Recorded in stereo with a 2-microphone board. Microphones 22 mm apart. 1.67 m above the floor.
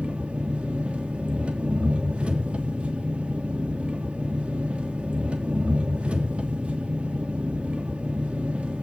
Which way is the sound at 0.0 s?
65° right (ahead or behind).